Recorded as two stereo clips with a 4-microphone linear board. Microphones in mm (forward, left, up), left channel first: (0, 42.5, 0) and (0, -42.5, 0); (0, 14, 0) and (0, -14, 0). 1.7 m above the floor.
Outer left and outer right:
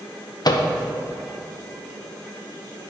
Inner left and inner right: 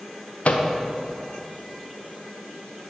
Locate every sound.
0.5 s a microwave: 50° left (ahead or behind), 0.6 m